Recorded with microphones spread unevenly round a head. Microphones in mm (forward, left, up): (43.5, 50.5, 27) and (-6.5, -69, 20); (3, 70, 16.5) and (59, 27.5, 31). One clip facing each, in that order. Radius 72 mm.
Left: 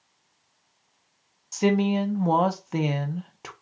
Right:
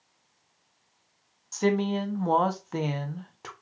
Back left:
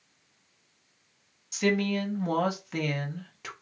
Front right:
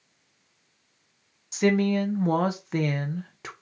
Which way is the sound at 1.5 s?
5° right.